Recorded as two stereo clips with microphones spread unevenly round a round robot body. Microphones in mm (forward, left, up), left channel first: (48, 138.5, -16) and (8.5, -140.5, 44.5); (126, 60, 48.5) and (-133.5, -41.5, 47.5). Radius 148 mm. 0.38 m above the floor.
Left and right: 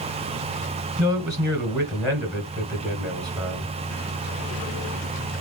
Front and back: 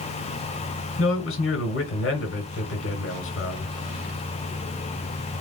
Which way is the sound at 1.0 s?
15° right.